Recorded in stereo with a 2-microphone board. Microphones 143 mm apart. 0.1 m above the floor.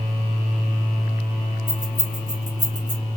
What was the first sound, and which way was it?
Keys jangling, 55° left (ahead or behind).